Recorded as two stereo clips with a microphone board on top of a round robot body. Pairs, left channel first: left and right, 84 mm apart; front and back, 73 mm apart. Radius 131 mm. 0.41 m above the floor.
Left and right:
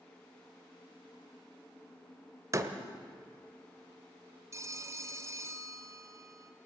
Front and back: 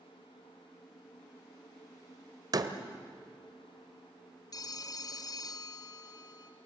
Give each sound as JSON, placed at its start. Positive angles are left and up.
{"t": 2.5, "sound": "a door slam", "azimuth_deg": -145, "distance_m": 1.5}
{"t": 4.5, "sound": "a phone ringing", "azimuth_deg": -35, "distance_m": 1.4}